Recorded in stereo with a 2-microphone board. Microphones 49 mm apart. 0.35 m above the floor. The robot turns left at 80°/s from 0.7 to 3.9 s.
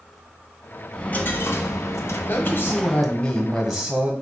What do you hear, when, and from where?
0.9 s a dropped coin: 165° left, 0.6 m; by 3.1 s 15° right, 0.6 m
2.3 s a man speaking: 95° left, 1.4 m; by 4.1 s 35° right, 1.4 m